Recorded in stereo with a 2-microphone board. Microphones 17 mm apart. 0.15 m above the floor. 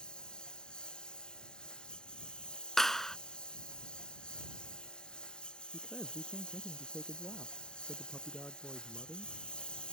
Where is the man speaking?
55° left (ahead or behind).